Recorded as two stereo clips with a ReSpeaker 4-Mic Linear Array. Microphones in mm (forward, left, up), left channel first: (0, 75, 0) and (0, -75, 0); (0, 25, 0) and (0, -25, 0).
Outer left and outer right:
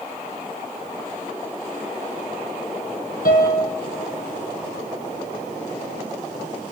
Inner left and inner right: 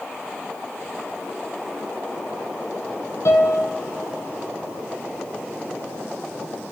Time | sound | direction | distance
3.2 | a piano | 75° left (ahead or behind) | 1.5 m